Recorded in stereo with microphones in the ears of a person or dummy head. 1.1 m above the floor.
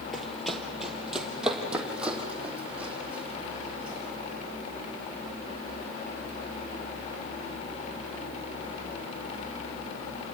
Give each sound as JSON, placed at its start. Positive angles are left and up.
{"t": 0.1, "sound": "running footsteps", "side_deg": 0, "distance_m": 1.6}